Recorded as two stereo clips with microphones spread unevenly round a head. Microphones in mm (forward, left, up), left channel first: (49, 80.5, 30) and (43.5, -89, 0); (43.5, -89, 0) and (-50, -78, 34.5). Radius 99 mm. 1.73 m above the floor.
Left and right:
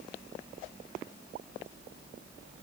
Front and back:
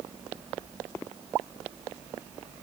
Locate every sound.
Only background noise.